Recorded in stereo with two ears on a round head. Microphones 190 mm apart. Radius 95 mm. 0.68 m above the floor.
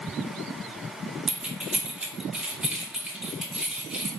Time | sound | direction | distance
1.3 | keys jangling | 5° right (ahead or behind) | 0.7 m